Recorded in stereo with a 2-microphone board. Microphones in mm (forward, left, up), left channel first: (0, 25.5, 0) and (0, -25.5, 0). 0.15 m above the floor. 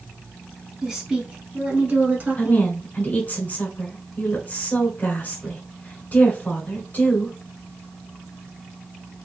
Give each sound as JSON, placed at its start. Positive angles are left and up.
{"t": 0.8, "sound": "a woman speaking", "side_deg": -10, "distance_m": 1.2}
{"t": 2.4, "sound": "a woman speaking", "side_deg": 35, "distance_m": 1.6}